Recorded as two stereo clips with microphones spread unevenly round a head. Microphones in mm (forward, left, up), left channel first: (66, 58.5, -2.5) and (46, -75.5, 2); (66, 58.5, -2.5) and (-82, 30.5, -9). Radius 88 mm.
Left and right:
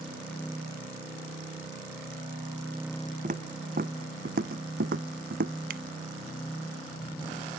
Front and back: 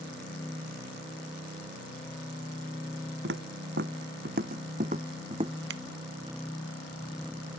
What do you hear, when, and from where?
3.2 s footsteps: 150° right; by 5.5 s 105° right
5.7 s scissors: 140° right